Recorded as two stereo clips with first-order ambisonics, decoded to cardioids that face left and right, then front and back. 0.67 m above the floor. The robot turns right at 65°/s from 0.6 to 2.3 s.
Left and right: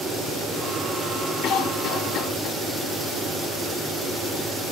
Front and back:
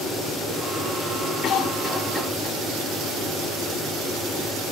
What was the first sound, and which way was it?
A cough, 55° left.